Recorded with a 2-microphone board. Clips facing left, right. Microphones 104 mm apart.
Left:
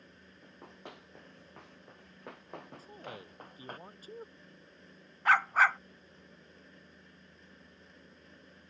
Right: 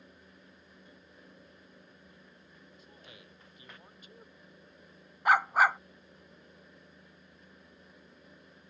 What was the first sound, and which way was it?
Running footsteps, 75° left (ahead or behind).